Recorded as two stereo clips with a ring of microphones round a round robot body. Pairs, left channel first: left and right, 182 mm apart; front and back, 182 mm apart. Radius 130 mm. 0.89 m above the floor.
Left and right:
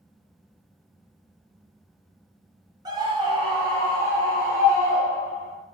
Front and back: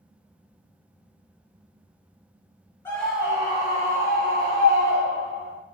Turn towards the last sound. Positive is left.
turn(degrees=-160)